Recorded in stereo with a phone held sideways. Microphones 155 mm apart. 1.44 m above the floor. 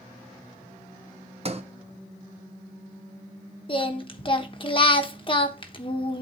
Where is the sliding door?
45° right (ahead or behind), 0.7 m.